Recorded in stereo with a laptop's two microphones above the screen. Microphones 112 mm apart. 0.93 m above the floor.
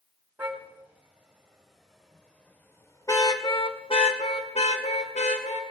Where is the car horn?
15° right (ahead or behind), 3 m; by 5.6 s 80° left, 2 m.